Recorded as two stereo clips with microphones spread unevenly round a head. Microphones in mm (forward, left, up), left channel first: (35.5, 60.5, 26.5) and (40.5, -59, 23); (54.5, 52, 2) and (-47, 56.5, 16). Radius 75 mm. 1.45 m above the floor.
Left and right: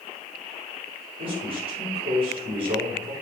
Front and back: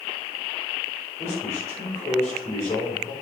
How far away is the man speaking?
About 5.5 m.